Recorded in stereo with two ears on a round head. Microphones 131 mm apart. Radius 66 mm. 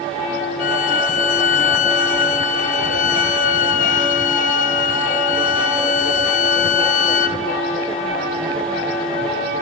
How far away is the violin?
About 0.6 m.